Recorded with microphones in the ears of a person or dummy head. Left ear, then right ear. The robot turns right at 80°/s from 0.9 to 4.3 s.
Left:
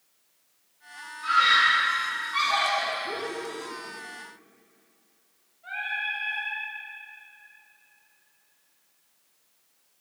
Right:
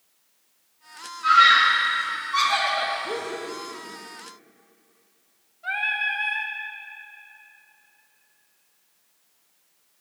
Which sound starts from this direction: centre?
A scream, at 1.2 s.